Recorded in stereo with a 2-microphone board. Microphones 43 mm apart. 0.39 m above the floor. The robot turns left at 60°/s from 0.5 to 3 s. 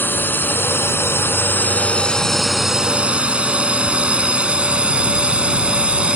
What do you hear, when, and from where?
0.0 s a drone: 55° left (ahead or behind); by 6.2 s 25° right (ahead or behind)